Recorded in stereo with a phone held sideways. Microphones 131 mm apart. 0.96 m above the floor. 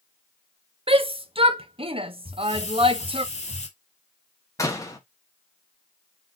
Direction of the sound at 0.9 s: 45° right (ahead or behind).